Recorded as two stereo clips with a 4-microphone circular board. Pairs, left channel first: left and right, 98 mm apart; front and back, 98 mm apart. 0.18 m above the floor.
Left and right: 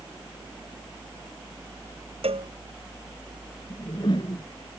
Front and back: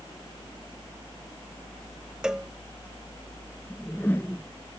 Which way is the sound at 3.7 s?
70° left.